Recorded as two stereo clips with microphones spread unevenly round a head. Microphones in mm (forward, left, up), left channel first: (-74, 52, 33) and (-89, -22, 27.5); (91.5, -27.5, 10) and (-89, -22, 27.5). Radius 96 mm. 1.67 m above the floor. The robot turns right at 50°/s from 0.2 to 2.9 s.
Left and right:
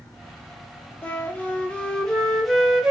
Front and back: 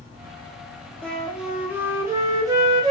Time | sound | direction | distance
1.0 | a flute | 85° left | 0.5 m